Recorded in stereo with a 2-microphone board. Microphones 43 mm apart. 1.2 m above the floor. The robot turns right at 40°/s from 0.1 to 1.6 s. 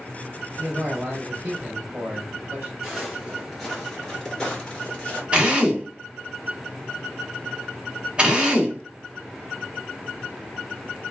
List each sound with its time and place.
0.6 s a man speaking: 95° right, 1.8 m; by 2.7 s 55° right, 1.8 m
2.8 s footsteps: 15° right (ahead or behind), 1.4 m; by 5.2 s 25° left (ahead or behind), 1.3 m
5.3 s a drill: 25° right (ahead or behind), 0.8 m